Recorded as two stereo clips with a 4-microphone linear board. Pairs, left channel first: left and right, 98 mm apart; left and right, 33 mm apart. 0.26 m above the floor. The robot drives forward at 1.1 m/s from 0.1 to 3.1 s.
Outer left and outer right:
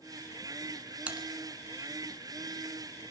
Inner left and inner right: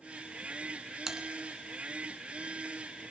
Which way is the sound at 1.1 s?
15° right (ahead or behind).